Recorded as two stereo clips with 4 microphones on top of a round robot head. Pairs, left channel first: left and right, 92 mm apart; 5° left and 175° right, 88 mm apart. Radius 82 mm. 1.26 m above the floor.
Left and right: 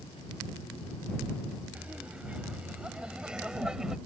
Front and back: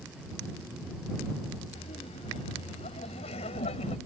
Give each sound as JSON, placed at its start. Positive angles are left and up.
{"t": 1.8, "sound": "laughter", "azimuth_deg": -15}